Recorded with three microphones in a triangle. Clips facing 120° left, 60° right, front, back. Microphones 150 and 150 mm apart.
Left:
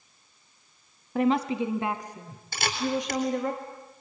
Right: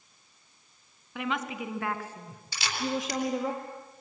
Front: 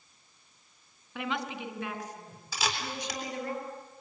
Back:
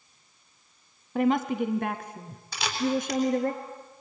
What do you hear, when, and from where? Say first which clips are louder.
1.1 s a woman speaking: left 9 dB, back 11 dB; 150° left, 1.7 m; by 3.5 s 145° right, 3 m
2.5 s a camera shutter: left 3 dB, back 8 dB; 85° left, 4 m